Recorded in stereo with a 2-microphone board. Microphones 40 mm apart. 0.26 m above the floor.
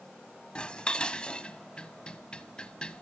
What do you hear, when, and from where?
0.6 s dishes clattering: 25° left (ahead or behind), 1.2 m